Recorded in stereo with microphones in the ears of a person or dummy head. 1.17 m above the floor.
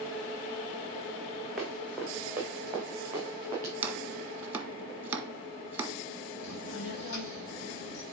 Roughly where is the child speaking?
Left.